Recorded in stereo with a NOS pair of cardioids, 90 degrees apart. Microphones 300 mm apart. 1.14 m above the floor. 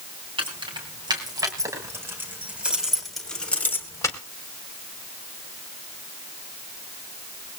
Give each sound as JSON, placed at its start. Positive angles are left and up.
{"t": 0.4, "sound": "keys jangling", "azimuth_deg": -15, "distance_m": 6.5}